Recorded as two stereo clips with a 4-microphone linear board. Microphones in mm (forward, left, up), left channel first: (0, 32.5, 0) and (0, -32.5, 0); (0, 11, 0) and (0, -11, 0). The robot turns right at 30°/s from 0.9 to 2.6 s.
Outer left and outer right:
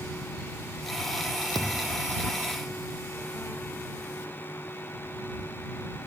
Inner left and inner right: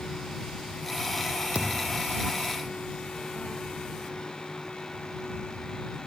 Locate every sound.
1.6 s a thud: 70° right (ahead or behind); by 2.1 s 80° right